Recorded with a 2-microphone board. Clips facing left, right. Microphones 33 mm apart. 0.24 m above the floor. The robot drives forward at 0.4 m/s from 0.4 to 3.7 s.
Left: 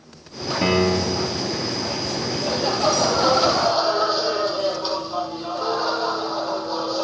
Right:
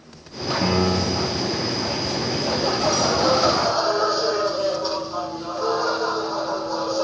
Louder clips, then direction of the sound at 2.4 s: Left 1 dB; 35° left (ahead or behind).